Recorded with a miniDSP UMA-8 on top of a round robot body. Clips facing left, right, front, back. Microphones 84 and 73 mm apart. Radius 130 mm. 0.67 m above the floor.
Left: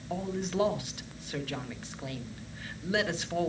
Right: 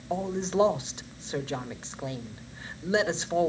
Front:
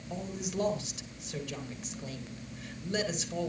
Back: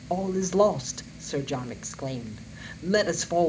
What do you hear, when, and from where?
0.1 s a man speaking: 155° right, 1.6 m